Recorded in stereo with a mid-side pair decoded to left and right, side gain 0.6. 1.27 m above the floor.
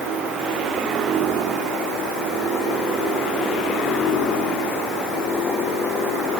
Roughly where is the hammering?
No hammering in this recording.